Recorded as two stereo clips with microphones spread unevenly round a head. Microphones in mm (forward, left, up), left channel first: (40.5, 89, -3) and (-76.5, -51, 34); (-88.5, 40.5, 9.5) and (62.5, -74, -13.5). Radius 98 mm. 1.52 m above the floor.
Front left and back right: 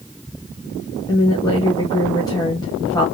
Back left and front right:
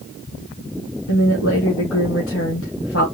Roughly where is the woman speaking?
Behind left.